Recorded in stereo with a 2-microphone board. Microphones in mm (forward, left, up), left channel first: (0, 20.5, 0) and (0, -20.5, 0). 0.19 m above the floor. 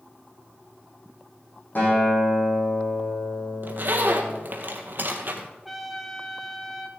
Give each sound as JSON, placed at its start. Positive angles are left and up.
{"t": 1.8, "sound": "a guitar", "side_deg": 50, "distance_m": 6.5}
{"t": 3.6, "sound": "a zipper", "side_deg": -55, "distance_m": 1.5}
{"t": 5.7, "sound": "a trumpet", "side_deg": 0, "distance_m": 1.2}